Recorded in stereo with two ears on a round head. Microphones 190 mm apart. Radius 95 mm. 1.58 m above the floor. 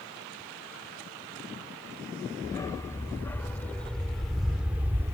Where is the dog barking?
15° left (ahead or behind); by 5.2 s 15° right (ahead or behind).